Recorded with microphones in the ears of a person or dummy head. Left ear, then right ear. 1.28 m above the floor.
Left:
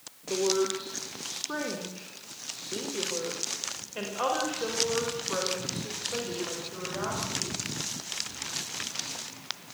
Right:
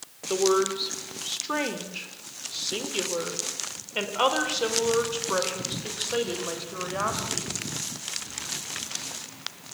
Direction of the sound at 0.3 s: 55° right (ahead or behind).